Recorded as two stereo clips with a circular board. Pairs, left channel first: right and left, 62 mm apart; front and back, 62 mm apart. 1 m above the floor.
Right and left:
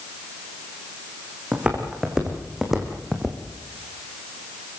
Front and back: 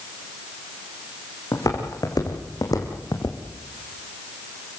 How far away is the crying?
No crying in this recording.